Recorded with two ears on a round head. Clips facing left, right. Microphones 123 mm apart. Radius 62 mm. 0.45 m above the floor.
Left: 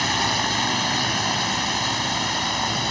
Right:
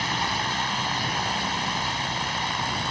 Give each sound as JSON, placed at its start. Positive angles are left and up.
{"t": 0.0, "sound": "a drone", "side_deg": 60}